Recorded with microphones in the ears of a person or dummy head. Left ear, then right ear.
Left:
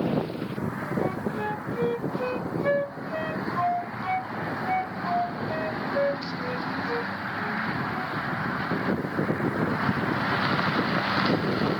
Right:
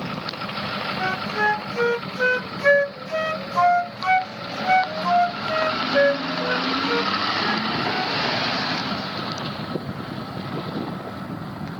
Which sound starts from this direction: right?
A flute, at 1.0 s.